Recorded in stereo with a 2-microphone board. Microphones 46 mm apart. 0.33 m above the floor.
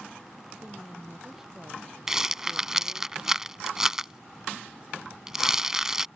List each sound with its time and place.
0.6 s a woman speaking: 15° right (ahead or behind)
2.1 s a rattle: 10° right (ahead or behind)